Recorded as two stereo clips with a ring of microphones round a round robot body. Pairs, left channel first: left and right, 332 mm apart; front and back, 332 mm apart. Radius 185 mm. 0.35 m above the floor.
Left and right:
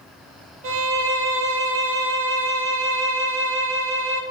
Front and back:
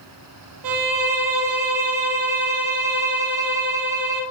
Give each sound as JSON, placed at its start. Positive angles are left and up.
{"t": 0.6, "sound": "a violin", "azimuth_deg": -145, "distance_m": 0.6}